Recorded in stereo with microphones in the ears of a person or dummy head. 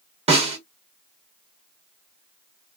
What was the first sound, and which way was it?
A snare drum, 30° right (ahead or behind).